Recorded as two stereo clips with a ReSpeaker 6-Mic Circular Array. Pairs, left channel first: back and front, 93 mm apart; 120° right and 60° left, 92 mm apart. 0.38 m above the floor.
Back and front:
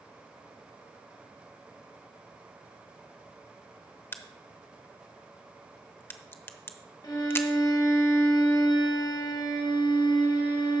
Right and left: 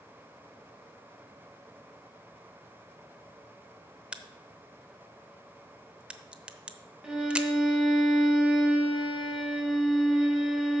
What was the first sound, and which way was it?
A crack, 130° left.